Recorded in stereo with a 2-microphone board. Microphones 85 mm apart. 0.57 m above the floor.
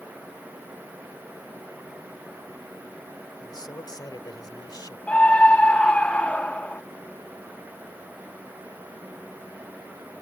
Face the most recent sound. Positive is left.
turn(degrees=15)  # may be behind; listen again after turning